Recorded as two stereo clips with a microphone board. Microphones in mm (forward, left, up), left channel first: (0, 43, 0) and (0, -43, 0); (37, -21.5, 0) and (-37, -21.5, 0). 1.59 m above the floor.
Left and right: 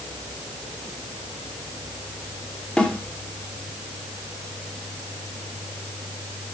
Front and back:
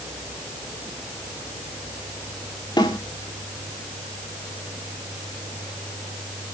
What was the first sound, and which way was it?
A snare drum, 10° left.